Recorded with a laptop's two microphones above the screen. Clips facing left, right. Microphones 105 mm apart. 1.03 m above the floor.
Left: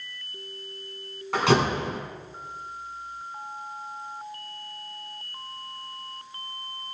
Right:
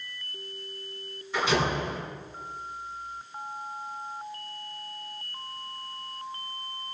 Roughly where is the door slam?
Left.